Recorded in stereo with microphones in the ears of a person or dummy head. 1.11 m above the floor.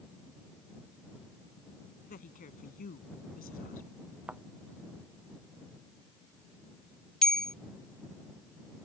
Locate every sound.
2.1 s a woman speaking: 40° left (ahead or behind)
4.3 s a thud: 10° right (ahead or behind)
7.2 s a bell: 5° left (ahead or behind)